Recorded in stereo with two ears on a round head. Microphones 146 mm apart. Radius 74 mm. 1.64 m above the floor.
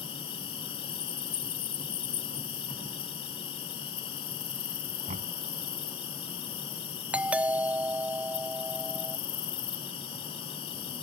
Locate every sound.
0.0 s an insect: 35° left (ahead or behind)
5.1 s knocking: 45° right (ahead or behind)
7.1 s a doorbell: 10° right (ahead or behind)